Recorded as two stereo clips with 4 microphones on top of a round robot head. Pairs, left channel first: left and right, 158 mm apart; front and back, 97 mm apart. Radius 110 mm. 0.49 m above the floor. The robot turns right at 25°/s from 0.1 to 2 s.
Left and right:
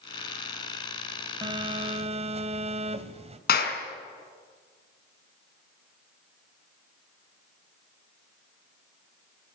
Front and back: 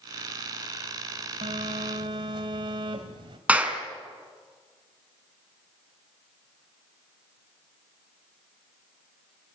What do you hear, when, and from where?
1.4 s a phone buzzing: 150° right, 2.5 m; by 3.4 s 135° right, 2.5 m
3.5 s a clap: 105° left, 4.5 m